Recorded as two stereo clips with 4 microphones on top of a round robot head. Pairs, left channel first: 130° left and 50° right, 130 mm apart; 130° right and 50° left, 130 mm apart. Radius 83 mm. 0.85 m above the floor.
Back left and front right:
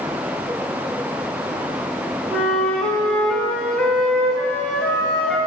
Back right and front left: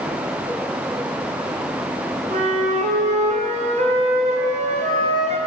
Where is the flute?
45° left, 1.6 m.